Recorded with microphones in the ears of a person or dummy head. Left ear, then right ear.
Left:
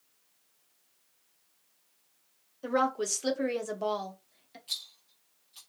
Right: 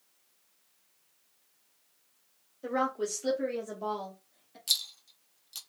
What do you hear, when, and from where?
2.6 s a woman speaking: 20° left (ahead or behind), 1.1 m; by 4.6 s 60° left (ahead or behind), 1.0 m
4.7 s a rattle: 80° right, 1.0 m